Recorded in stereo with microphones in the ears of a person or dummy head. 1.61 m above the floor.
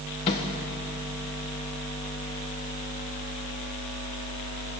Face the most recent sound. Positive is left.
turn(degrees=25)  # may be behind; listen again after turning